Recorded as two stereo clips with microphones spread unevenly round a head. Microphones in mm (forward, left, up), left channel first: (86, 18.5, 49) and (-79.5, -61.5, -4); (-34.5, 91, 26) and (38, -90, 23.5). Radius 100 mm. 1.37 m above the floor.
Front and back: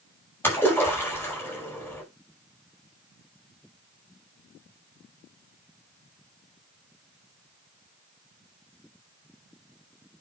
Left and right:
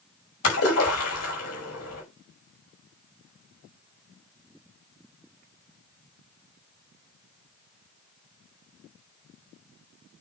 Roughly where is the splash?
Left.